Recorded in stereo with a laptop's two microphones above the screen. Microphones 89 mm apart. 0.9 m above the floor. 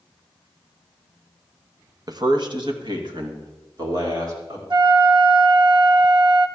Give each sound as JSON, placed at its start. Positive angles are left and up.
{"t": 2.1, "sound": "a man speaking", "side_deg": -45, "distance_m": 0.7}
{"t": 4.7, "sound": "a flute", "side_deg": -60, "distance_m": 0.9}